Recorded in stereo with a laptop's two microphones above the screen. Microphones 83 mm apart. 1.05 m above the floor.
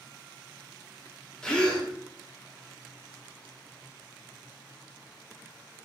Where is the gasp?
10° left (ahead or behind), 0.8 m.